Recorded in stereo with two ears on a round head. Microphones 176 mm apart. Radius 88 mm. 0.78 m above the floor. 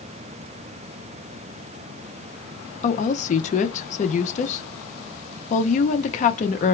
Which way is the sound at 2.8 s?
40° left (ahead or behind).